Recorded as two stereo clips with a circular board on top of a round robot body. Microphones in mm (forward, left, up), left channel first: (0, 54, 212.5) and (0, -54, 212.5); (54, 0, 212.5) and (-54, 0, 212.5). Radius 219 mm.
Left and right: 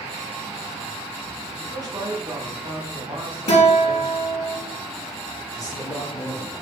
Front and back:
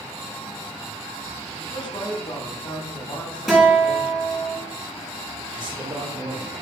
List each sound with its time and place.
1.6 s a man speaking: 40° right, 3.5 m
3.5 s a guitar: 95° left, 3.5 m
5.5 s a man speaking: 145° left, 2.5 m